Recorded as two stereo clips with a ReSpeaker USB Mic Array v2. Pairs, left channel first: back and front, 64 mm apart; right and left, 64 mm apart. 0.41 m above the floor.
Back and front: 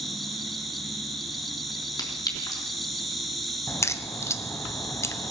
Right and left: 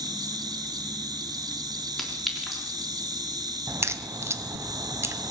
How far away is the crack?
About 0.7 m.